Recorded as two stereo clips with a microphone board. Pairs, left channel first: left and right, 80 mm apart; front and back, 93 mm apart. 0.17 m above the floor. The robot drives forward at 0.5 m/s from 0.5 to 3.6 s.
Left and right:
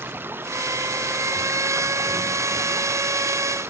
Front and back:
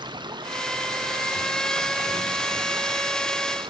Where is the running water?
150° right; by 3.7 s 155° right.